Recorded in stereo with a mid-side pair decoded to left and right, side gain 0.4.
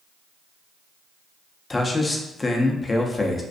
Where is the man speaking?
30° left, 0.6 m.